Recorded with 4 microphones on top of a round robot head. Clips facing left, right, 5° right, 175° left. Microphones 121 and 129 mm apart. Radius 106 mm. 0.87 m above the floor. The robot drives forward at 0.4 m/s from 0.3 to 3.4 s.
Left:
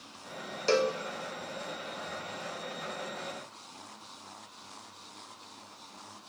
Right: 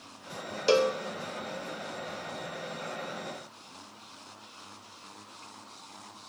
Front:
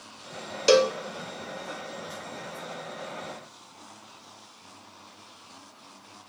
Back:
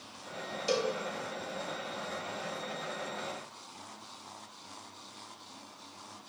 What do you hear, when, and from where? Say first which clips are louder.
0.7 s a cowbell: right 3 dB, front 11 dB; 15° right, 0.9 m